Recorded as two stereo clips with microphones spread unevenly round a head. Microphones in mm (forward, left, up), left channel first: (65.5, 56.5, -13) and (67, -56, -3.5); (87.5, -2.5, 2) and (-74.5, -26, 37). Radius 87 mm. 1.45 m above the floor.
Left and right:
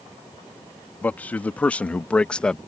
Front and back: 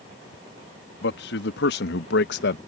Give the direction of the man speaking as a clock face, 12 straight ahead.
11 o'clock.